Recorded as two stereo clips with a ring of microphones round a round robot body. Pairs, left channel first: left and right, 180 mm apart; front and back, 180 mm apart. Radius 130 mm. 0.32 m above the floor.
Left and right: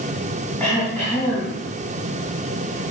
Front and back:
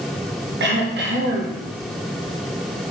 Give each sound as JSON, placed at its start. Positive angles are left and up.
{"t": 0.6, "sound": "throat clearing", "azimuth_deg": 175, "distance_m": 3.0}